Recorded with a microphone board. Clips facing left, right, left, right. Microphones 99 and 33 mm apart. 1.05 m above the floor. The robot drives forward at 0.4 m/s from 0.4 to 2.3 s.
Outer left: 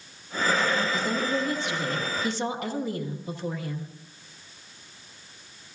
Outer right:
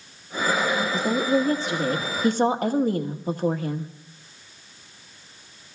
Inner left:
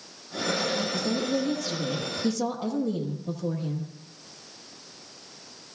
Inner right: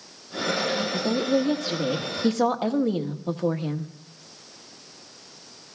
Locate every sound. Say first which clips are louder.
0.9 s a woman speaking: outer right 5 dB, inner right 4 dB; 35° right (ahead or behind), 1.7 m; by 3.9 s 45° right (ahead or behind), 1.3 m